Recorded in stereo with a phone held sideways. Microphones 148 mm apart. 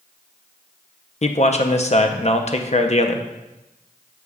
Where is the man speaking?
50° left (ahead or behind), 0.6 m.